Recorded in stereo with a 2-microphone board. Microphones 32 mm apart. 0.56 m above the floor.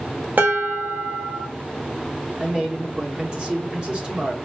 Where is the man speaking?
25° right (ahead or behind), 0.9 m.